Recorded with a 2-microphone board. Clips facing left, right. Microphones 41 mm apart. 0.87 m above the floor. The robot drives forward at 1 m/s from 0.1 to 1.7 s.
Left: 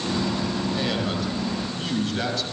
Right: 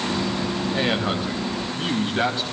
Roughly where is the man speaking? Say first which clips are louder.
Right 3 dB; right.